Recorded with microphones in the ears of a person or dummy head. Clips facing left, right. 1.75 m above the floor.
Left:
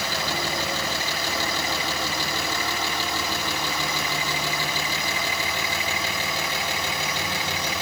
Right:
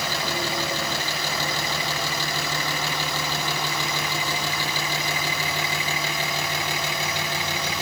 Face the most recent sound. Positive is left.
No sound to turn to.